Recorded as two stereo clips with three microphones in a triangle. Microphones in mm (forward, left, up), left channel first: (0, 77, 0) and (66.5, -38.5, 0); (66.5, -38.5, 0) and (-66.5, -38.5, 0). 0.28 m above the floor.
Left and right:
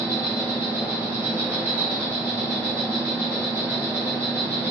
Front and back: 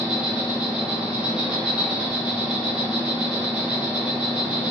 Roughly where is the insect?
Right.